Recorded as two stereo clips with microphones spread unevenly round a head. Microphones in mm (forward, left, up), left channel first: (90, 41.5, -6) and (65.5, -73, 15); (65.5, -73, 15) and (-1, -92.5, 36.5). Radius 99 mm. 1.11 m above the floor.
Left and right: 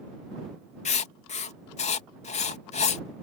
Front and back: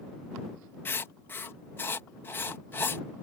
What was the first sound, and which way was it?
Writing, 75° left.